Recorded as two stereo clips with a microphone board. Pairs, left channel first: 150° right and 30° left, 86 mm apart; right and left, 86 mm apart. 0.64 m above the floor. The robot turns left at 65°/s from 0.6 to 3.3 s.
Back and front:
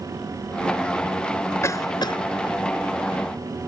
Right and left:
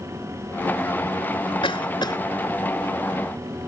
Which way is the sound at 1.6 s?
90° right.